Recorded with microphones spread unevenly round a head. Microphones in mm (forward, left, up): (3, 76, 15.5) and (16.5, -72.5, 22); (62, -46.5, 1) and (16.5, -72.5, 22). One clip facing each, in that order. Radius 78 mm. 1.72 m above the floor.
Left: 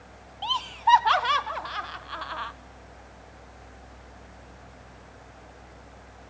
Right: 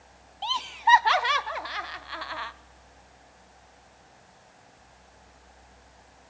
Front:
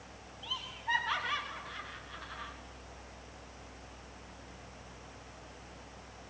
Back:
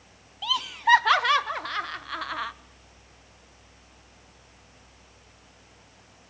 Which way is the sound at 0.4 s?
165° right.